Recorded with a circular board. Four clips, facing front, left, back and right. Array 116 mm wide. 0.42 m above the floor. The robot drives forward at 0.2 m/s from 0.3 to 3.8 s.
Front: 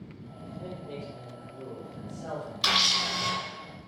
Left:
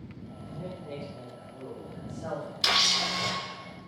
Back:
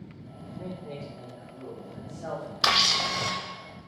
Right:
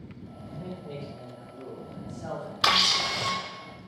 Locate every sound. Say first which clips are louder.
0.6 s a man speaking: even, back 1 dB; 145° left, 1.4 m; by 2.5 s 155° left, 1.7 m
2.6 s a camera shutter: right 5 dB, back 4 dB; 130° right, 0.5 m; by 3.3 s 140° right, 0.6 m